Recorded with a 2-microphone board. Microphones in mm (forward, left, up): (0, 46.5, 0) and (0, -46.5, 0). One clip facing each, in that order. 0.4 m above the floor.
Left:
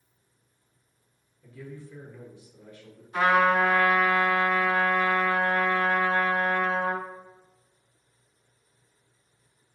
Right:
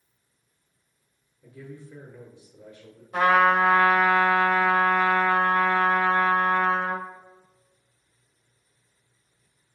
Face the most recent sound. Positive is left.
turn(degrees=-55)  # may be behind; listen again after turning